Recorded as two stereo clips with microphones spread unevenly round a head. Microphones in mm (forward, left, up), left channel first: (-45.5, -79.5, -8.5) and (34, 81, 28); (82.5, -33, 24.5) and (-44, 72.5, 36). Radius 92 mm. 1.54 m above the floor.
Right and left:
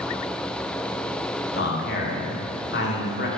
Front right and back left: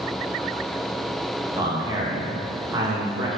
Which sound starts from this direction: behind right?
A man speaking, at 1.6 s.